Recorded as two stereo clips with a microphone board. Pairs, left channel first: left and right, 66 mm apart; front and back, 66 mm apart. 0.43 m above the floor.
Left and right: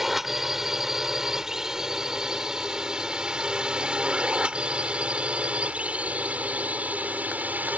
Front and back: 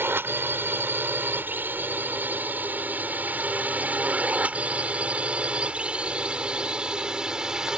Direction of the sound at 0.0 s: 170° right.